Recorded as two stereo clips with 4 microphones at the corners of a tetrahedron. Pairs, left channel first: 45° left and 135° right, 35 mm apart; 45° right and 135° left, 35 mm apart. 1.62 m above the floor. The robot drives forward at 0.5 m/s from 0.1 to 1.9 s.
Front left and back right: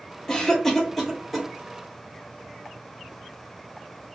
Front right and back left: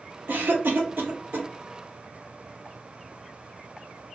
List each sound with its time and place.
0.3 s a cough: 115° left, 1.0 m; by 1.5 s 135° left, 1.3 m